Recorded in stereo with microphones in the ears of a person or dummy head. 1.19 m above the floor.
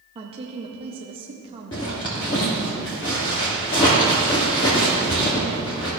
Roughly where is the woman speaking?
Right.